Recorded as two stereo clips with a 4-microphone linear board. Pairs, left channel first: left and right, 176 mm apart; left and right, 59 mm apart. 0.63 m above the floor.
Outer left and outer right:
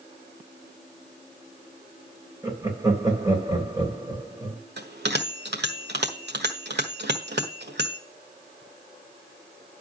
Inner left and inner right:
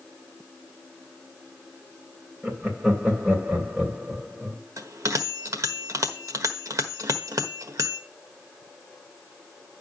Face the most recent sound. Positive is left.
turn(degrees=-70)  # may be behind; listen again after turning